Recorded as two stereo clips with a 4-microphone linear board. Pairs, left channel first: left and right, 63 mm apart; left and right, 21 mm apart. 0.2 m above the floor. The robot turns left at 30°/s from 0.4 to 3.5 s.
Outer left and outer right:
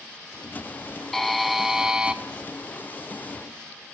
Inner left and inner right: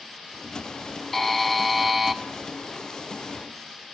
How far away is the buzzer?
About 0.5 m.